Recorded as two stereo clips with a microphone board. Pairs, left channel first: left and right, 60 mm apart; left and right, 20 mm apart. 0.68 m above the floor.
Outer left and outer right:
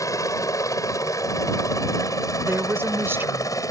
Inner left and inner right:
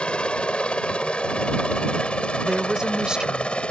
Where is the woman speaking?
40° right (ahead or behind).